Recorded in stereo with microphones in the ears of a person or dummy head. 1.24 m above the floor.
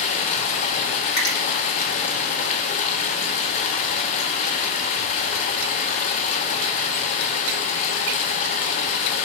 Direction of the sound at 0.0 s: 50° left (ahead or behind).